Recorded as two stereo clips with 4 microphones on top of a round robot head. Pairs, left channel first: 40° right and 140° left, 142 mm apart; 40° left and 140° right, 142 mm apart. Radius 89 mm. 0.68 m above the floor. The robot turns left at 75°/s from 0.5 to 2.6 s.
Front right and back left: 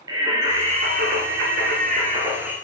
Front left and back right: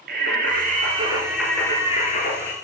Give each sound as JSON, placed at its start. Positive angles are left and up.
{"t": 0.1, "sound": "singing", "azimuth_deg": -160, "distance_m": 3.5}